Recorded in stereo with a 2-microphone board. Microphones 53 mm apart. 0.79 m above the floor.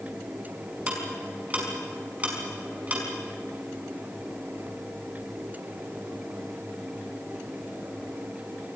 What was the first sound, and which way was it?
Ticking, 25° right (ahead or behind).